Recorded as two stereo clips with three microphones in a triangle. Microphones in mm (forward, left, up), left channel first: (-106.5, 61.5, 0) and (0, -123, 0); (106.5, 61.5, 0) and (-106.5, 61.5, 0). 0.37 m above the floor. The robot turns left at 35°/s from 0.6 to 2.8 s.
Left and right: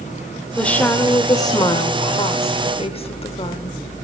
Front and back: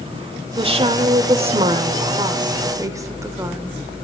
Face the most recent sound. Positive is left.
turn(degrees=125)